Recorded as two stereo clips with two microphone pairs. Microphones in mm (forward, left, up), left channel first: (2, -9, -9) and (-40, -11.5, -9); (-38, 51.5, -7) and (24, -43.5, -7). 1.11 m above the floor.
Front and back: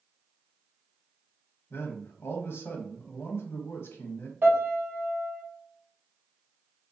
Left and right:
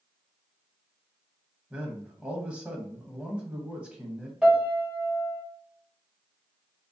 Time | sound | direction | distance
1.7 | a man speaking | 25° left | 0.9 m
4.4 | a piano | 140° right | 1.2 m